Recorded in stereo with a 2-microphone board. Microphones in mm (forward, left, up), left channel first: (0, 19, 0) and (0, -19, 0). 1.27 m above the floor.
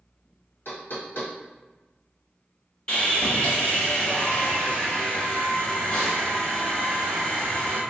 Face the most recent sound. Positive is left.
turn(degrees=30)  # may be behind; listen again after turning